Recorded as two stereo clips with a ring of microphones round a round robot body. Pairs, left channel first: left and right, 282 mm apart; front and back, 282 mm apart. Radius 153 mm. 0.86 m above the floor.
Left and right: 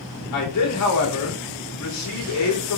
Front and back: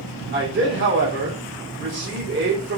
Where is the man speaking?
120° left, 1.7 m.